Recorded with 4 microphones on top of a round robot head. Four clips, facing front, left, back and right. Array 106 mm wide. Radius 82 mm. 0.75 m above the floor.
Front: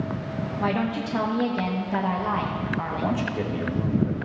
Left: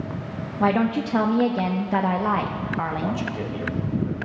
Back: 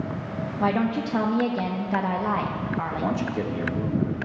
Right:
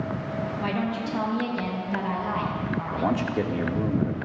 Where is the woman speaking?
100° left, 0.9 m.